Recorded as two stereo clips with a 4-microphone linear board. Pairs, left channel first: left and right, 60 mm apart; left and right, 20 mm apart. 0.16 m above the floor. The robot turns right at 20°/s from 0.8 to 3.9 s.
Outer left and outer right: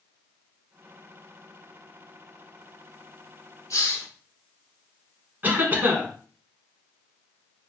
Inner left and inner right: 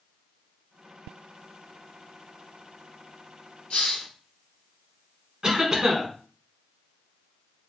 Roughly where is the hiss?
Left.